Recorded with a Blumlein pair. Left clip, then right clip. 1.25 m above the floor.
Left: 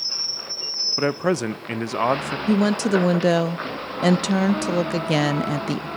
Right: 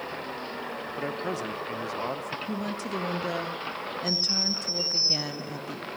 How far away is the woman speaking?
About 0.6 m.